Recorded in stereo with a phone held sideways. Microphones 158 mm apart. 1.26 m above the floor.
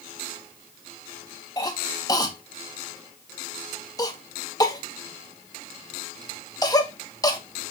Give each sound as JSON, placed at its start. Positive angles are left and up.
{"t": 1.6, "sound": "a cough", "side_deg": 20, "distance_m": 1.8}